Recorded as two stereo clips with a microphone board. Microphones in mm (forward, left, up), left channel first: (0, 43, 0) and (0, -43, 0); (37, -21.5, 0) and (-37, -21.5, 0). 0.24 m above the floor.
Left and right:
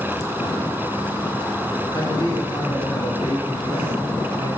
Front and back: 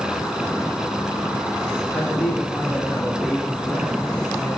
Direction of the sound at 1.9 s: 70° left.